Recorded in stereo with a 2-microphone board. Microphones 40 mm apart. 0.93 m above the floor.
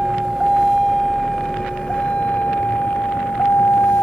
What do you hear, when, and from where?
0.0 s a vehicle: 15° right (ahead or behind); by 4.0 s 75° left (ahead or behind)